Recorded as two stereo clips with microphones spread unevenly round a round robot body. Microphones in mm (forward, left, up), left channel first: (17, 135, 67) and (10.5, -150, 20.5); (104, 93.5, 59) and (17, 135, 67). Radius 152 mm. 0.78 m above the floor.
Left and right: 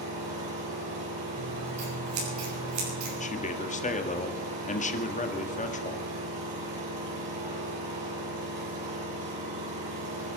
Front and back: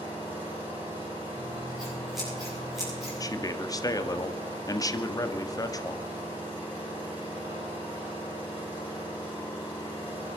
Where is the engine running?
75° right, 8.5 m.